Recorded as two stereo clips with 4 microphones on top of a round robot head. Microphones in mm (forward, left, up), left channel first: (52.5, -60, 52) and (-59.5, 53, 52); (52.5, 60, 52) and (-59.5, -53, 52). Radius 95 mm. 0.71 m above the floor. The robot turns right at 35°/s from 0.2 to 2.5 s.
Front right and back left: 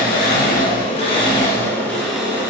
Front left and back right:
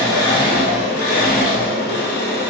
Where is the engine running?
20° right, 1.4 m; by 2.5 s 60° left, 1.4 m.